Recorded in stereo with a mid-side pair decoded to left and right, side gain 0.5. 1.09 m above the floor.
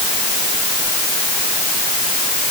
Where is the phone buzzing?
I don't hear a phone buzzing.